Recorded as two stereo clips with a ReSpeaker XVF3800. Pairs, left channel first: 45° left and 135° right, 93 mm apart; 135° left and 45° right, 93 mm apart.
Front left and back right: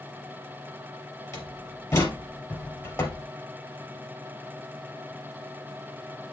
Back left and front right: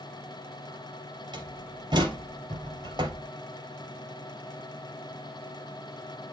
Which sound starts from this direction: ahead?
A door slam, at 1.3 s.